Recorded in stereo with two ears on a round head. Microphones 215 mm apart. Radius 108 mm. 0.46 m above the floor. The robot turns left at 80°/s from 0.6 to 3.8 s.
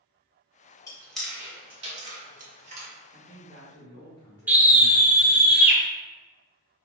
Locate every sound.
0.9 s chewing: 15° left (ahead or behind), 1.1 m; by 2.9 s 25° right (ahead or behind), 1.1 m
3.1 s a man speaking: 135° left, 1.6 m; by 5.5 s 80° left, 1.6 m
4.5 s a scream: 10° right (ahead or behind), 1.0 m